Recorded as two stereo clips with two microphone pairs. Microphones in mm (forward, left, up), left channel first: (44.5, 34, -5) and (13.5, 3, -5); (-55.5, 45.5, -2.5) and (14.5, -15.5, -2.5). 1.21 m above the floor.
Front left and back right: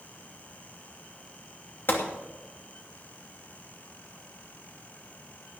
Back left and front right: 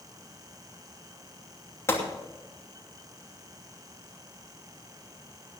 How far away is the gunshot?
About 2.5 m.